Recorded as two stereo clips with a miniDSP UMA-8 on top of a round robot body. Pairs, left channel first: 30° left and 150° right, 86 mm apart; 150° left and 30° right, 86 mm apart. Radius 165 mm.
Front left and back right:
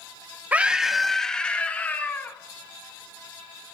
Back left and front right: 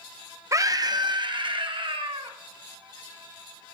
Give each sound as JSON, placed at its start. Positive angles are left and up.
{"t": 0.5, "sound": "a scream", "azimuth_deg": -80, "distance_m": 0.9}